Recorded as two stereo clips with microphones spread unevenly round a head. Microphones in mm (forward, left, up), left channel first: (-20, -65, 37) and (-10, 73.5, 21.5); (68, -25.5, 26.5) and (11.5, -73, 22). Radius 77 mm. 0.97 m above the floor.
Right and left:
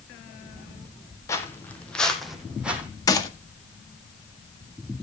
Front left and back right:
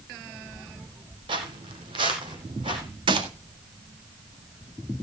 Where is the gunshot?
160° right, 1.7 m.